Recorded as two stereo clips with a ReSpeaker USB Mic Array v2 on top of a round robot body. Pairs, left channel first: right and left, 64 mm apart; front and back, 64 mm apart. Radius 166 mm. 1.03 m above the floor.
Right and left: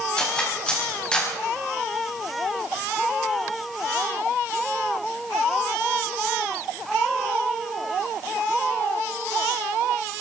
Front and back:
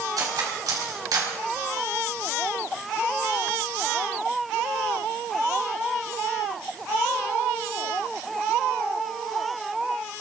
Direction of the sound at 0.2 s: 165° right.